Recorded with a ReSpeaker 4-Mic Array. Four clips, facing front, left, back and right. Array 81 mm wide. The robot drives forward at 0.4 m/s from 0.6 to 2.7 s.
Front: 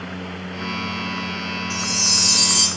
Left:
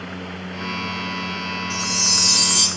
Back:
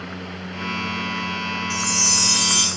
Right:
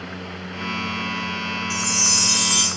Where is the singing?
No singing in this recording.